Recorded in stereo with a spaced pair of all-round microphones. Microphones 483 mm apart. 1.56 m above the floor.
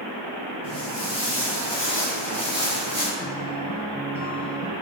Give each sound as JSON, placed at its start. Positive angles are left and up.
{"t": 0.6, "sound": "footsteps", "side_deg": -30, "distance_m": 1.9}
{"t": 3.2, "sound": "a guitar", "side_deg": 45, "distance_m": 1.3}